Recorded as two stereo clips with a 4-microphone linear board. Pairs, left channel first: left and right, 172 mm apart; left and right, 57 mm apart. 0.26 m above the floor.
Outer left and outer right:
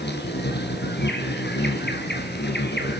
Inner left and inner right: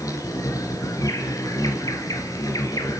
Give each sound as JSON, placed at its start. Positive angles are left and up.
{"t": 0.0, "sound": "an insect", "side_deg": 75, "distance_m": 2.5}